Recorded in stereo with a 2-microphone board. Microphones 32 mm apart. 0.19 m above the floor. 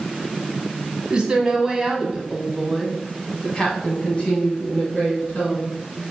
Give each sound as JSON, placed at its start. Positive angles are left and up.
{"t": 1.1, "sound": "a woman speaking", "side_deg": -20, "distance_m": 1.5}